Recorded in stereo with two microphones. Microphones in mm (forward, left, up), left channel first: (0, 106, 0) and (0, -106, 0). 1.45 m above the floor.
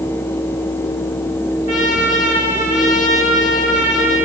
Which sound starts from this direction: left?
A trumpet, at 1.7 s.